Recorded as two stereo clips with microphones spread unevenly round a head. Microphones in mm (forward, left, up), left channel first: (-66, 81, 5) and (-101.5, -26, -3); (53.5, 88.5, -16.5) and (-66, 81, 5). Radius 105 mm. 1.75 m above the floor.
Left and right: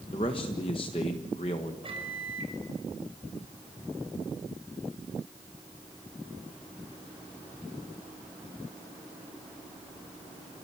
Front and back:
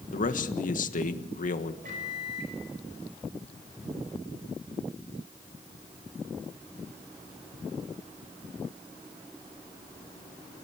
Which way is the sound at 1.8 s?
150° right.